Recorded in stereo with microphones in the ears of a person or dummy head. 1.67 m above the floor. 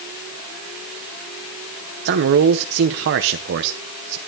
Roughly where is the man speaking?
Right.